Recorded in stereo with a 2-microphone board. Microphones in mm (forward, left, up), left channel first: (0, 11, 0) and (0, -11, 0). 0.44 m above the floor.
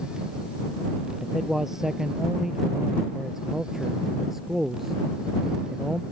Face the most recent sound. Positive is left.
turn(degrees=-10)  # may be behind; listen again after turning